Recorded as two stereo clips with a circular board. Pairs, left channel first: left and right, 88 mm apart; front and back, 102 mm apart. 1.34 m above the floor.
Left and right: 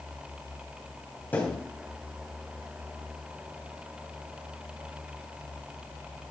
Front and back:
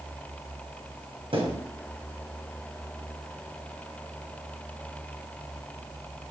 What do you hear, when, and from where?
1.3 s a thud: 160° left, 3.5 m